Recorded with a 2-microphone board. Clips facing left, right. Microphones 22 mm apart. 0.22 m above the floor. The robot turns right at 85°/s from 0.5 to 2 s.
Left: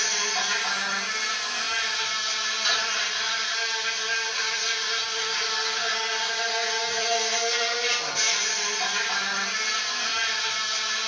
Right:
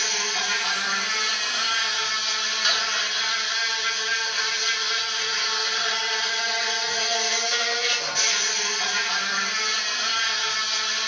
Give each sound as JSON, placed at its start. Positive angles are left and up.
{"t": 0.0, "sound": "an insect", "azimuth_deg": -165, "distance_m": 0.8}